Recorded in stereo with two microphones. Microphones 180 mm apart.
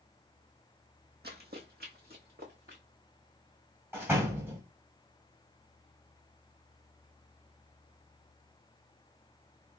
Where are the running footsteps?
65° right (ahead or behind), 1.1 m; by 2.8 s 55° right (ahead or behind), 2.0 m.